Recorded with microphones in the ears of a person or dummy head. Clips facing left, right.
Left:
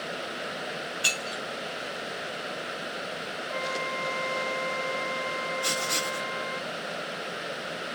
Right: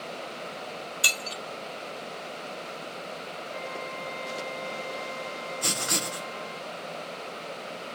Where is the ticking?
No ticking in this recording.